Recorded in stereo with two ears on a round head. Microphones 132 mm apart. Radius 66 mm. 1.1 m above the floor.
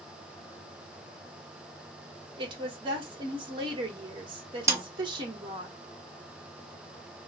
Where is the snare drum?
20° right (ahead or behind), 0.7 m.